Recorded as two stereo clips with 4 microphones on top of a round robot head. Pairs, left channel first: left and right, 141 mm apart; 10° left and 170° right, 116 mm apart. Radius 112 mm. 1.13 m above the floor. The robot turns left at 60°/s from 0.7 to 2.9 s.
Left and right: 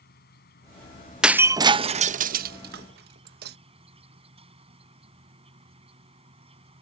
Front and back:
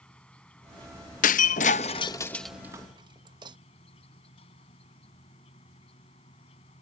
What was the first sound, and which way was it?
An insect, 90° left.